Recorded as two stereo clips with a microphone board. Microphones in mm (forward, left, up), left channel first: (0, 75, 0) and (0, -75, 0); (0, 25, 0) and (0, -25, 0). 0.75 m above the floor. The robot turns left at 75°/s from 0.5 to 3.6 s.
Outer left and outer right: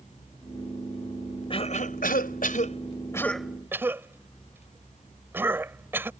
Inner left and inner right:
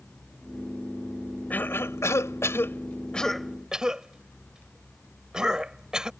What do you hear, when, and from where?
1.5 s a cough: 35° left (ahead or behind); by 6.1 s 15° right (ahead or behind)